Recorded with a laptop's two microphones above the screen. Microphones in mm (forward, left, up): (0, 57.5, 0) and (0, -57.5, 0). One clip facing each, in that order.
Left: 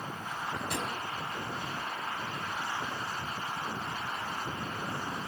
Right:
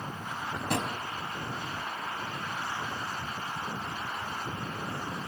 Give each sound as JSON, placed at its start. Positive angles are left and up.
{"t": 0.2, "sound": "a drawer", "side_deg": -60, "distance_m": 4.0}